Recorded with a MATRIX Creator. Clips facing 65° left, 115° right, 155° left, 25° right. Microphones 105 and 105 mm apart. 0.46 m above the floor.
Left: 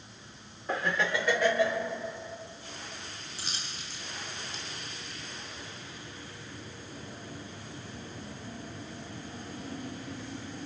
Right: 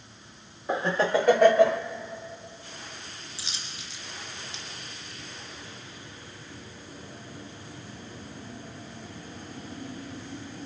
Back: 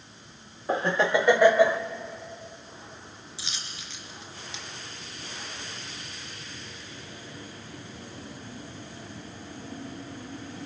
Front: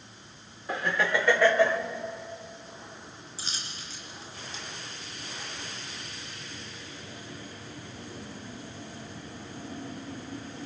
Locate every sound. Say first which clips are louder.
0.7 s laughter: right 5 dB, back 4 dB; 170° right, 0.8 m; by 1.8 s 125° right, 1.5 m
3.4 s a dropped coin: left 1 dB, front 1 dB; 25° left, 3 m